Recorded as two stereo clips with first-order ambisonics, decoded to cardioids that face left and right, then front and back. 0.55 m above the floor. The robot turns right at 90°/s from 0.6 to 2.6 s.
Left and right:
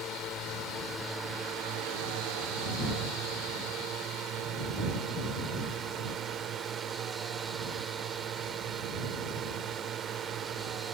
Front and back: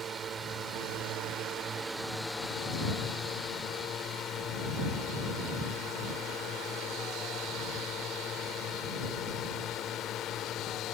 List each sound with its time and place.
0.0 s a drone: 130° left; by 10.9 s 50° right